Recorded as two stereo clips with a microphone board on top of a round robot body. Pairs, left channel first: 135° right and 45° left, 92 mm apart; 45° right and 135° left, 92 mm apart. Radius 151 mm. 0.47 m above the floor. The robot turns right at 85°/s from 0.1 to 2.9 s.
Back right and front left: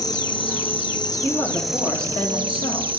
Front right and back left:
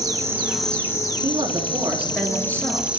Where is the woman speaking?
140° left, 3 m; by 2.9 s 75° right, 3 m.